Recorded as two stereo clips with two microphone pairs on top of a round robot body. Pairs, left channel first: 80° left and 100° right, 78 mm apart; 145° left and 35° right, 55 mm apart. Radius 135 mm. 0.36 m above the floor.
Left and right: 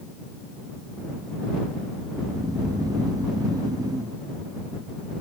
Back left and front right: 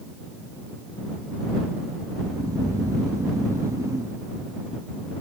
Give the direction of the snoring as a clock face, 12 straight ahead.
2 o'clock.